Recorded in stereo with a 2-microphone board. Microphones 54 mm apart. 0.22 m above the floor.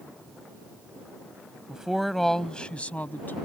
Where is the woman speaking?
15° right (ahead or behind); by 3.4 s 35° left (ahead or behind).